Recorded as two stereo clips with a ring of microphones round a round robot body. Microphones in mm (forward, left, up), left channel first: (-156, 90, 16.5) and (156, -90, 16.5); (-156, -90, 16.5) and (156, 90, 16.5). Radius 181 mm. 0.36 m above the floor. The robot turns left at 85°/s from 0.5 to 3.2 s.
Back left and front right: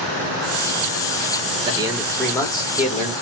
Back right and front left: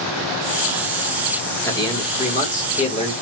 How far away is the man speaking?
About 1.1 m.